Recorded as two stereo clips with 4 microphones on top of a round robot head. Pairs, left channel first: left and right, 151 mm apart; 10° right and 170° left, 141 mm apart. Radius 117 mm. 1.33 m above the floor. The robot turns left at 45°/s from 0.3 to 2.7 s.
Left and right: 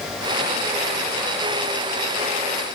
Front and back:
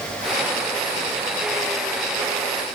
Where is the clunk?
I don't hear a clunk.